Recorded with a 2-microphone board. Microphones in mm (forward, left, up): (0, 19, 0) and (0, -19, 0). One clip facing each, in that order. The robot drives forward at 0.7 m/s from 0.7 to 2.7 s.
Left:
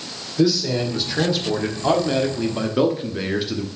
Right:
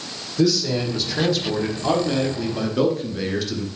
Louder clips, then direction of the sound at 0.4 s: Left 1 dB; 10° left (ahead or behind).